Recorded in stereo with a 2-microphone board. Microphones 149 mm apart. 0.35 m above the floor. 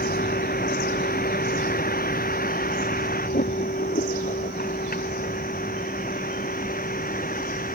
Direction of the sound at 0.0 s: 85° left.